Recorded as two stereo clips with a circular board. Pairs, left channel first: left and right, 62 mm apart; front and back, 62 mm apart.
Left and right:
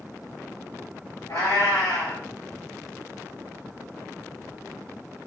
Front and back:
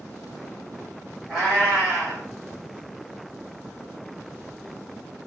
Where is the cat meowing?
100° left, 1.6 m.